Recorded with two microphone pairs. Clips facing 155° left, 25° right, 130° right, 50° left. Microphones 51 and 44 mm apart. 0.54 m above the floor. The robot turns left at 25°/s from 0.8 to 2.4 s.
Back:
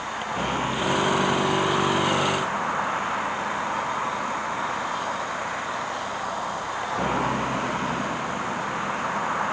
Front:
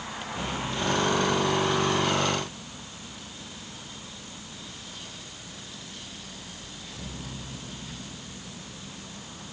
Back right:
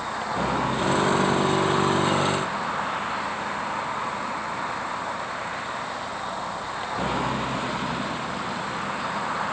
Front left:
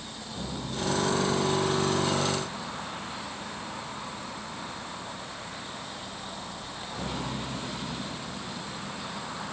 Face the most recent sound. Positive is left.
turn(degrees=180)